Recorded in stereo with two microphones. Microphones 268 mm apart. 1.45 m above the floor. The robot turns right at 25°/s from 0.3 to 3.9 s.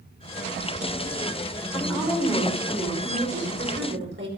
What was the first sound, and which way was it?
A woman speaking, 170° left.